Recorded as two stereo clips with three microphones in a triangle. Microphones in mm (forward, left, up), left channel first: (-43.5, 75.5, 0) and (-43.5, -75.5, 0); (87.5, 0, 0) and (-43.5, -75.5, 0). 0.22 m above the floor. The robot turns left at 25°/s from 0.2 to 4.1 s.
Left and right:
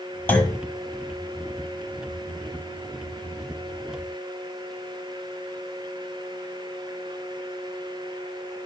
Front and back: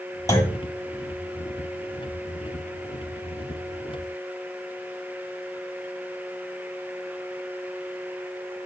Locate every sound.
0.3 s a clunk: 35° left, 1.2 m; by 0.6 s 25° left, 1.2 m